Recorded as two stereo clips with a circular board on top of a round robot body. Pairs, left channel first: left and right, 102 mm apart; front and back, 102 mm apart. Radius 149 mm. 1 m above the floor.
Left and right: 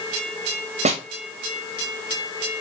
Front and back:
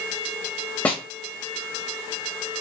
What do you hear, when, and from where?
0.8 s a snare drum: 75° right, 1.3 m